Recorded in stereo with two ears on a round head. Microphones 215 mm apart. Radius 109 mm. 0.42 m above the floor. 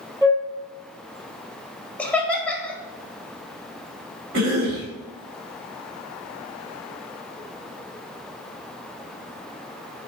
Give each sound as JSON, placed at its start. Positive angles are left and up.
{"t": 0.2, "sound": "a flute", "side_deg": -15, "distance_m": 1.4}
{"t": 2.0, "sound": "laughter", "side_deg": 5, "distance_m": 1.9}
{"t": 4.3, "sound": "a cough", "side_deg": -50, "distance_m": 2.5}